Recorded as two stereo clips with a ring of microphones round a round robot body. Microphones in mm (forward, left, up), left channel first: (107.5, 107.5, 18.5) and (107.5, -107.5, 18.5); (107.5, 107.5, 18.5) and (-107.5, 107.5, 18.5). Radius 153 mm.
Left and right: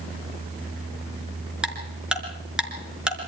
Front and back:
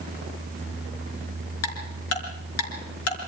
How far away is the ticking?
About 4.5 m.